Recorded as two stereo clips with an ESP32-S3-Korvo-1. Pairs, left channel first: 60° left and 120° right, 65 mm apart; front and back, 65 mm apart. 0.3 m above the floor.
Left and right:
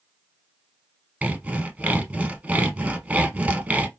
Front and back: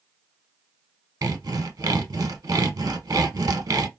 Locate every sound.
1.2 s sawing: 175° left, 0.6 m